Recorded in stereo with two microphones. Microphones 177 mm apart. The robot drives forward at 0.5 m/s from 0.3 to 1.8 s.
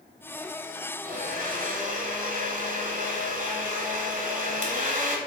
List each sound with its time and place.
1.1 s a blender: 50° right (ahead or behind), 1.2 m; by 5.2 s 45° right (ahead or behind), 1.3 m